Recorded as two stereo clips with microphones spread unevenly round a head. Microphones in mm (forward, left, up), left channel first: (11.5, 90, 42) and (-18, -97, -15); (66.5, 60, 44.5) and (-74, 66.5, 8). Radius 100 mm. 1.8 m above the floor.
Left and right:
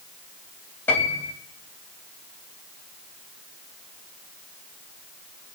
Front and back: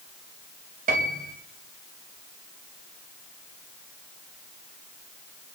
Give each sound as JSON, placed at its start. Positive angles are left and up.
{"t": 0.9, "sound": "a piano", "azimuth_deg": 150, "distance_m": 3.0}